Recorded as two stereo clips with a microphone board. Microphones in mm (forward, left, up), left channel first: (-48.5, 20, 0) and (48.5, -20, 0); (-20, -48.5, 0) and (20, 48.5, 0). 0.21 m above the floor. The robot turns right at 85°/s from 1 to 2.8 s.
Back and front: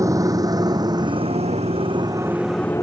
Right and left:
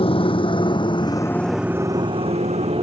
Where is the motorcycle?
80° right; by 2.8 s 90° left.